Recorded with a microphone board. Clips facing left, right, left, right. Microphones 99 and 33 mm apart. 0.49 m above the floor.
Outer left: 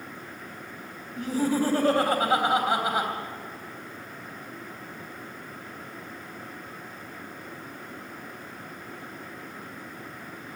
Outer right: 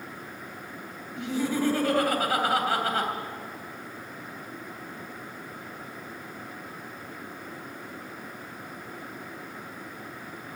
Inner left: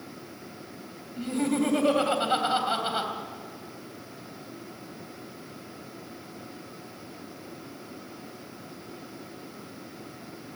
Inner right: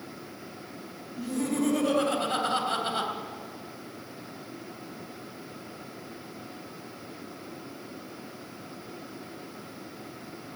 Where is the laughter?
45° left (ahead or behind), 3 m; by 3.1 s 15° left (ahead or behind), 3 m.